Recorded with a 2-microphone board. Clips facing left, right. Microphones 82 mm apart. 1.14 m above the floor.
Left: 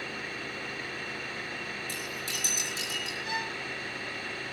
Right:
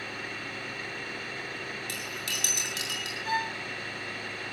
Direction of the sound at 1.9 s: 80° right.